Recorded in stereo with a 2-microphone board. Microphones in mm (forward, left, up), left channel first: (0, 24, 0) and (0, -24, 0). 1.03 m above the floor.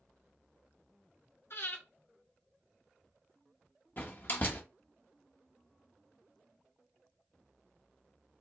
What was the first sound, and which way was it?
Breathing, 60° left (ahead or behind).